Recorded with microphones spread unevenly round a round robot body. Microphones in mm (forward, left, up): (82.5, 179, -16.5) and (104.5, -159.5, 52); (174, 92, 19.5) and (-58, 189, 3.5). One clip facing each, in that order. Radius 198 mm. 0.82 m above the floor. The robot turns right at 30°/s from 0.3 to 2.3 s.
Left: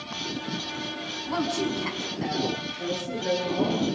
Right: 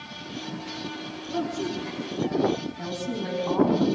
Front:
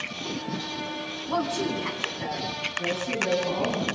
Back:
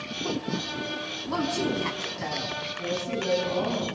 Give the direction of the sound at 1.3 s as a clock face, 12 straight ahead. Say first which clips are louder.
Left 1 dB, back 1 dB; 9 o'clock.